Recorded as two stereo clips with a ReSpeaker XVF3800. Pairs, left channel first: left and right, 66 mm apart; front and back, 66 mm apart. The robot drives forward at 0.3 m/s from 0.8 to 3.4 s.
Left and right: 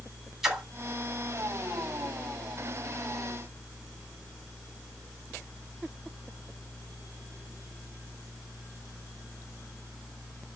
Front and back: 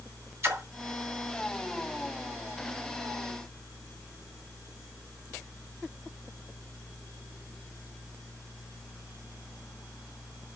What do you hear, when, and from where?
0.4 s a splash: 165° right, 1.9 m